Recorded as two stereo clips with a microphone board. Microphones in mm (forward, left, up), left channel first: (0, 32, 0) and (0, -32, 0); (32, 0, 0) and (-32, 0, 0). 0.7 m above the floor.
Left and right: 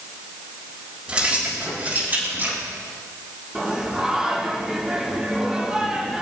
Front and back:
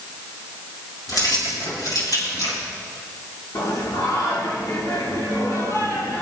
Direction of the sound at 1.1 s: 15° right.